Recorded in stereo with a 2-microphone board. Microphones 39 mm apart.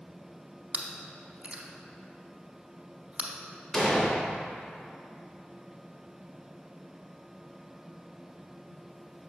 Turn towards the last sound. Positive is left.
turn(degrees=15)  # may be behind; listen again after turning